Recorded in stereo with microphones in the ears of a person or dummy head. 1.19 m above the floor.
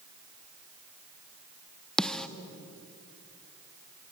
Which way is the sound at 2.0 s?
Centre (ahead or behind).